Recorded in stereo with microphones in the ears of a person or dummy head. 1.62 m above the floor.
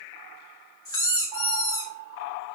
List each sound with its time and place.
0.8 s a squeak: 15° left (ahead or behind), 1.0 m